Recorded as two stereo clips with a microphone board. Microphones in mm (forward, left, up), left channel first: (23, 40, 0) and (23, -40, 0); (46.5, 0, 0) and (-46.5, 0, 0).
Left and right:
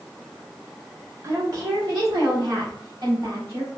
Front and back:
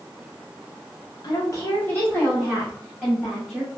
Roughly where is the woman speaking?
Ahead right.